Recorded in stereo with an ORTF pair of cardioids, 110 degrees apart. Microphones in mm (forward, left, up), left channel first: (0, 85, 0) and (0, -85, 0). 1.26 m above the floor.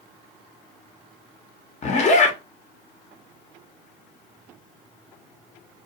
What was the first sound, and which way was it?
A zipper, 45° left.